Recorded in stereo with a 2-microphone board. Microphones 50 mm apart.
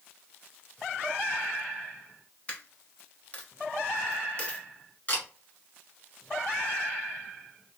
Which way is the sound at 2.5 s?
25° left (ahead or behind).